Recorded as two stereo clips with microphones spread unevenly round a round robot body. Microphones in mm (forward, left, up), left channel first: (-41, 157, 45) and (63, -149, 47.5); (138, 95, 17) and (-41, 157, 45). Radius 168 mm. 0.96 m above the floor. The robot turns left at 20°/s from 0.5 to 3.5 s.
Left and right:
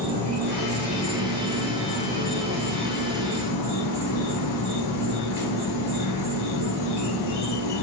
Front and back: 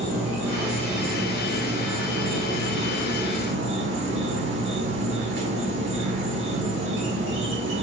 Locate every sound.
0.0 s an insect: 150° right, 1.4 m; by 7.8 s 150° left, 1.4 m